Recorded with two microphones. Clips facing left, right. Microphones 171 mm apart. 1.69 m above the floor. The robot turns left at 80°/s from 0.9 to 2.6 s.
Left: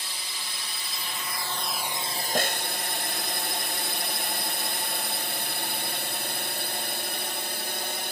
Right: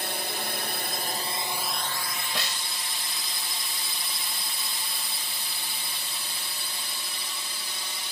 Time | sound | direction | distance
0.0 | a drone | 60° right (ahead or behind) | ?
2.4 | a snare drum | 45° left (ahead or behind) | ?